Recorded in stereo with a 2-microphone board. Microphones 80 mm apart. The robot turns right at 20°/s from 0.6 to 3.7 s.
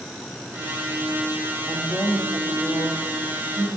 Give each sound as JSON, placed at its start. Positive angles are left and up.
{"t": 1.7, "sound": "a woman speaking", "azimuth_deg": -165, "distance_m": 5.5}